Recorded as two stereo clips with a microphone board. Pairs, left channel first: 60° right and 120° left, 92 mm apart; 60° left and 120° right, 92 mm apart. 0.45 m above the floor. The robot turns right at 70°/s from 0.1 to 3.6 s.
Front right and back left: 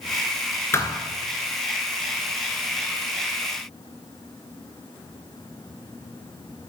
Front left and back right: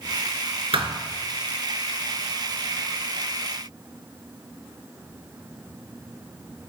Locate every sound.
0.7 s a thud: 120° right, 0.9 m; by 1.0 s 100° right, 0.9 m